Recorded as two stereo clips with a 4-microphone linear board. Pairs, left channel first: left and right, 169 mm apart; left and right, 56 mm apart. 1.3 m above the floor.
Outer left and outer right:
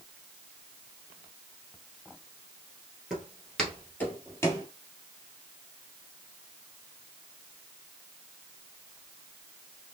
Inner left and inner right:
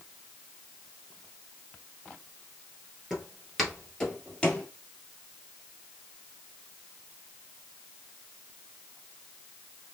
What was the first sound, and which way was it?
Footsteps, 5° right (ahead or behind).